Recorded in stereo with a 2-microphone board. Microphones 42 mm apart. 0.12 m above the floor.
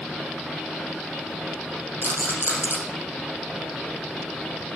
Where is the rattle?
55° right (ahead or behind), 4 m.